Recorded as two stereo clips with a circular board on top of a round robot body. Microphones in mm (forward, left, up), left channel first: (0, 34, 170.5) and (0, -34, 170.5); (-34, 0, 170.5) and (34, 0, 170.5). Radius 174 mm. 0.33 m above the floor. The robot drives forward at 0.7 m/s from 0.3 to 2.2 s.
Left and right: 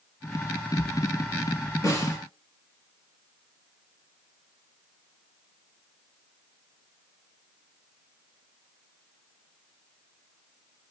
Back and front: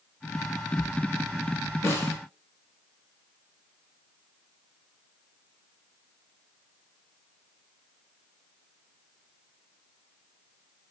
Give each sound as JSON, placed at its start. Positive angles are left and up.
{"t": 1.8, "sound": "a snare drum", "azimuth_deg": 130, "distance_m": 2.5}